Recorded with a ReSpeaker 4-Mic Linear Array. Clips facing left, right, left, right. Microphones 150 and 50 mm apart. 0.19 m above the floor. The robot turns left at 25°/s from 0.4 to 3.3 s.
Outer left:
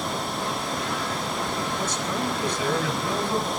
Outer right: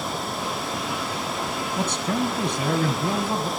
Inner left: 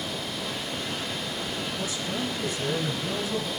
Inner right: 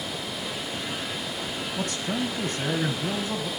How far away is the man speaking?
About 3 m.